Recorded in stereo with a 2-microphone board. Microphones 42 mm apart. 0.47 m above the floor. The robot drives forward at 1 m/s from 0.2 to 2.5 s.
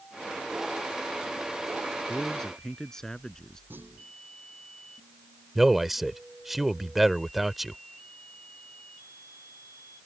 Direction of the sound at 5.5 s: 5° right (ahead or behind).